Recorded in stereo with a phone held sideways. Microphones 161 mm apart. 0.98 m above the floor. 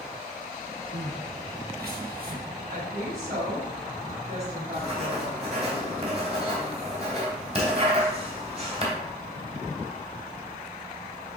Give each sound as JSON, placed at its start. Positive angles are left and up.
{"t": 0.9, "sound": "crying", "side_deg": -70, "distance_m": 1.2}
{"t": 2.7, "sound": "a woman speaking", "side_deg": -65, "distance_m": 4.5}
{"t": 4.7, "sound": "writing", "side_deg": -40, "distance_m": 2.5}